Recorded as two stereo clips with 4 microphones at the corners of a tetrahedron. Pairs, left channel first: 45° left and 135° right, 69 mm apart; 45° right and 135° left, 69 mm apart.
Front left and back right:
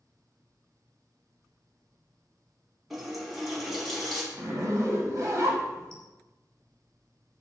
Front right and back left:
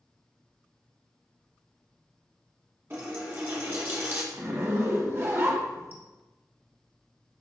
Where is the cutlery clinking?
No cutlery clinking in this recording.